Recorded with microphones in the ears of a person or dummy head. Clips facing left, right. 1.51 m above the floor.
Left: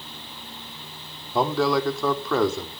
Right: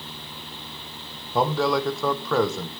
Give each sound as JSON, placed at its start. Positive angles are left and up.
{"t": 1.3, "sound": "a man speaking", "side_deg": 0, "distance_m": 1.5}